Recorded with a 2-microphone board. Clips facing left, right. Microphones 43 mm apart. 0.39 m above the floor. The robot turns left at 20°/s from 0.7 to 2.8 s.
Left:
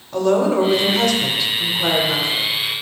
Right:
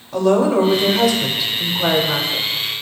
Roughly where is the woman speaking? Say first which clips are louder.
Right 1 dB; ahead.